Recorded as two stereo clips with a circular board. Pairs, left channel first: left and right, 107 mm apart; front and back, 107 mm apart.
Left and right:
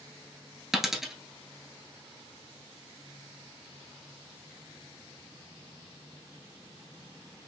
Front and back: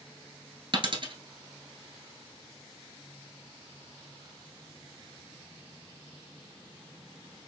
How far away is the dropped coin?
About 1.1 m.